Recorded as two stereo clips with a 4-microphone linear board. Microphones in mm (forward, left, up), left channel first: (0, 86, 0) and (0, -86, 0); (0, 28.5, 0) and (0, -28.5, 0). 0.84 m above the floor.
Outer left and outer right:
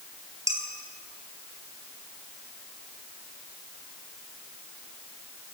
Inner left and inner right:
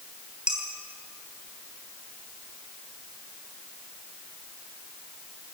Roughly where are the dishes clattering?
Right.